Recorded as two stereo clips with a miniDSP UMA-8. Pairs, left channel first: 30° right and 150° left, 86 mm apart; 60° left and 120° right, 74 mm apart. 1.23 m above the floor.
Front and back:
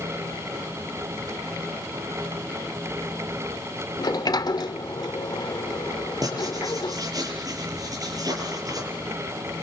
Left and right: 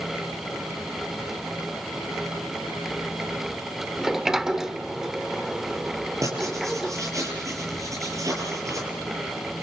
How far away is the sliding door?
About 1.1 m.